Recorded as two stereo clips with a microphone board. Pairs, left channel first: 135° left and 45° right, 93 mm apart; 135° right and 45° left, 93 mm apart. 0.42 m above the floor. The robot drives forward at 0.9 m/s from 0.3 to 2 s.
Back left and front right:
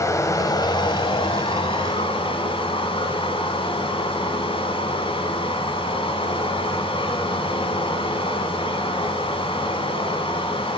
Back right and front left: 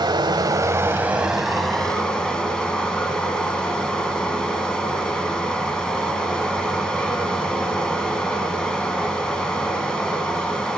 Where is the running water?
80° left, 1.0 m; by 10.8 s 145° left, 1.7 m.